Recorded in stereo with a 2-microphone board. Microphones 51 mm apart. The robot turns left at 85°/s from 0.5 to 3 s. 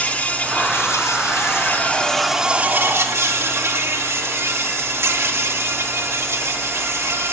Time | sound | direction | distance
0.0 | an insect | 150° left | 2 m